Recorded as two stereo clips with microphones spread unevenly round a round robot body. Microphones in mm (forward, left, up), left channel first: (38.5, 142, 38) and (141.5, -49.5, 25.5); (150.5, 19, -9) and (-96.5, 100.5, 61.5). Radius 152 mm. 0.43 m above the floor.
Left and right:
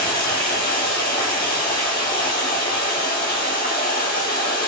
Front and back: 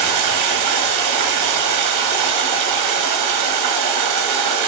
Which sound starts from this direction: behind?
Running water, at 0.0 s.